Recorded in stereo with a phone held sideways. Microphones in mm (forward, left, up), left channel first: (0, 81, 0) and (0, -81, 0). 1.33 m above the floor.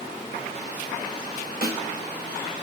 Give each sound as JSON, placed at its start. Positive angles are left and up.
{"t": 1.6, "sound": "a snare drum", "side_deg": -65, "distance_m": 1.3}